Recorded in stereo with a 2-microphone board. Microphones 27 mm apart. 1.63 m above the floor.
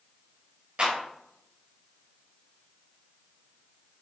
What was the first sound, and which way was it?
A clap, 45° right (ahead or behind).